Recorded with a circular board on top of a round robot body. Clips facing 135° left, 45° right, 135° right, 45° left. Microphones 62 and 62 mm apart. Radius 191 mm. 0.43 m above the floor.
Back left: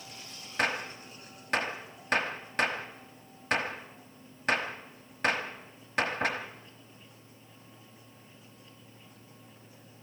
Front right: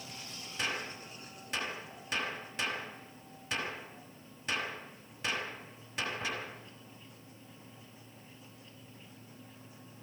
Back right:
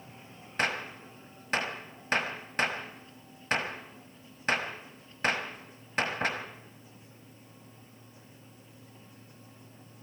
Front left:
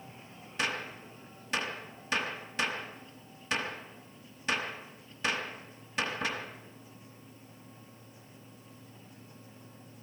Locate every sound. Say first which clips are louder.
0.6 s a gunshot: back left 6 dB, back right 3 dB; 175° left, 1.1 m